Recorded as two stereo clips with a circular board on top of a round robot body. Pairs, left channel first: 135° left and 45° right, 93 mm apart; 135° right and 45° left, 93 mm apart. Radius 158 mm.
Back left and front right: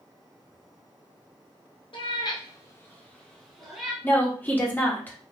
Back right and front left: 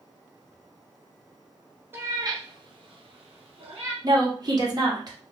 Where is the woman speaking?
70° left, 1.2 m.